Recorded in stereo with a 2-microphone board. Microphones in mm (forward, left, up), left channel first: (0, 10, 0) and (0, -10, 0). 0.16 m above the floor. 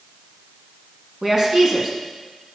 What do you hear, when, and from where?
1.2 s a woman speaking: 25° right (ahead or behind), 1.7 m